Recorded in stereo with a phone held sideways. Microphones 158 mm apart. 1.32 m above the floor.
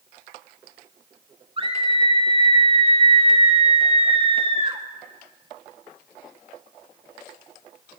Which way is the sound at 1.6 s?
35° right (ahead or behind).